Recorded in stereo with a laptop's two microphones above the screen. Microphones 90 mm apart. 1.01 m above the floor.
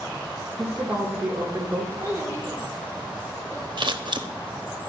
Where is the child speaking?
30° right (ahead or behind), 2 m.